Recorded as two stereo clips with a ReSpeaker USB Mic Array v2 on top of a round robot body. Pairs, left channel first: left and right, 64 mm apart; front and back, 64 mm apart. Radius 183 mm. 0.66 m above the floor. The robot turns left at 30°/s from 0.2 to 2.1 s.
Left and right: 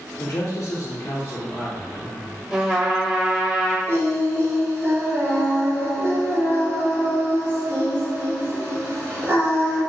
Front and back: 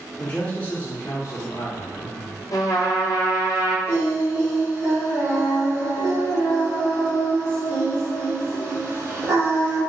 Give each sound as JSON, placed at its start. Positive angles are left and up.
{"t": 0.2, "sound": "a man speaking", "azimuth_deg": 75, "distance_m": 0.7}
{"t": 2.5, "sound": "a trumpet", "azimuth_deg": -10, "distance_m": 0.9}
{"t": 3.9, "sound": "singing", "azimuth_deg": -135, "distance_m": 1.8}